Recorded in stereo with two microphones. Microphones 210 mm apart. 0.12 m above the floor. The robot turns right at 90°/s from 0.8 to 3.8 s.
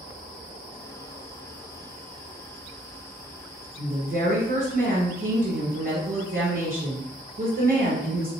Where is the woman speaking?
35° right (ahead or behind), 2.0 m.